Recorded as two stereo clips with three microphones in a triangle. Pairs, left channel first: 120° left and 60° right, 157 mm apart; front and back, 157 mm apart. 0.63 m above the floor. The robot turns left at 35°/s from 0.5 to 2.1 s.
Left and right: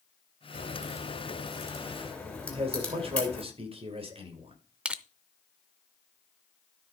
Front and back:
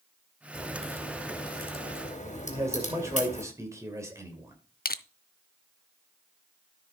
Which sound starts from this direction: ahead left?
Crushing, at 4.8 s.